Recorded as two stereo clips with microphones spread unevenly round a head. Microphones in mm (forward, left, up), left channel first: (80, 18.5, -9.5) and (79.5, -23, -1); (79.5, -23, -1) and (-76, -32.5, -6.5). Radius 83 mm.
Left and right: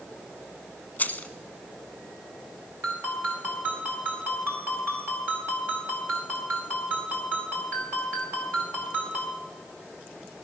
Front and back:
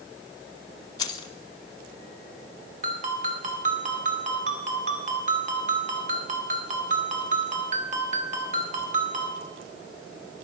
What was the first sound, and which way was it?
Keys jangling, 45° left.